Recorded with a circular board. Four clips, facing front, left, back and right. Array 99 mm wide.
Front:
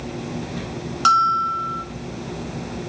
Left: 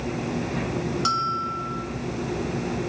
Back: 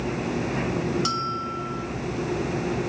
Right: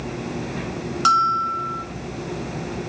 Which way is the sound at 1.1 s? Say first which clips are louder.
Right 12 dB, front 11 dB; 30° right.